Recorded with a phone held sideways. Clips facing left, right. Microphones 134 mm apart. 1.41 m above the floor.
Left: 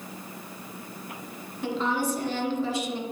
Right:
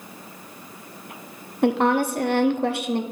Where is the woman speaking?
65° right (ahead or behind), 0.8 m.